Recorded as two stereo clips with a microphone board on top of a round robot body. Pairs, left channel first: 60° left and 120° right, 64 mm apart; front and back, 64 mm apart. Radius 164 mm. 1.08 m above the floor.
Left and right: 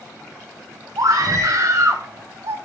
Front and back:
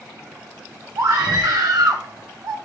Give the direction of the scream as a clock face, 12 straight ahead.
5 o'clock.